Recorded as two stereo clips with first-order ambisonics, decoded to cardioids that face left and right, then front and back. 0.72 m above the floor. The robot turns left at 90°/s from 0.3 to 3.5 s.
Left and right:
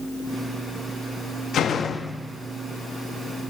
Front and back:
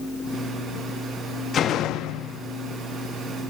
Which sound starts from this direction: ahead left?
A door slam, at 1.5 s.